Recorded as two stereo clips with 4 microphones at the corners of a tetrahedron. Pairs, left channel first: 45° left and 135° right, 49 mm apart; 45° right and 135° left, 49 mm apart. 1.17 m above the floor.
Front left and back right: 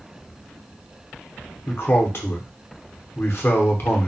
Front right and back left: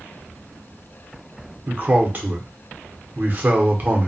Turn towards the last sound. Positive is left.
turn(degrees=80)